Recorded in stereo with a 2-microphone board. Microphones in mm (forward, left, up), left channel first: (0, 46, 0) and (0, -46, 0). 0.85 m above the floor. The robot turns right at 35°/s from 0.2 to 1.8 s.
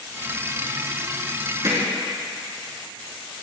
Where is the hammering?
40° right (ahead or behind), 3.5 m; by 1.9 s 35° right (ahead or behind), 3.5 m.